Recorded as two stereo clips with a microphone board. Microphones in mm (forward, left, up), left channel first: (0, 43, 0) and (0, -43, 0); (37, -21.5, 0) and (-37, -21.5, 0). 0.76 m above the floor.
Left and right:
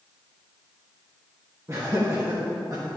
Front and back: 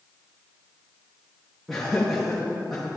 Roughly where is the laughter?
Right.